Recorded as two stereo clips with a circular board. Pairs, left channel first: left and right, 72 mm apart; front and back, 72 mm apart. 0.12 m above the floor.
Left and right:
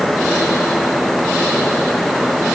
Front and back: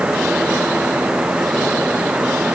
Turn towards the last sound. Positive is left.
No sound to turn to.